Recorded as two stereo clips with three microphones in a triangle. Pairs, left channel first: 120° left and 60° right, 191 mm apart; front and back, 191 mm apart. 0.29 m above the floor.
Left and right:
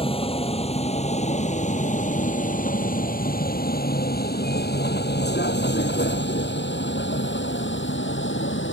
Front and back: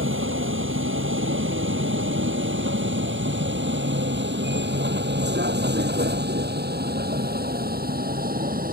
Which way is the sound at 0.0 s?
Straight behind.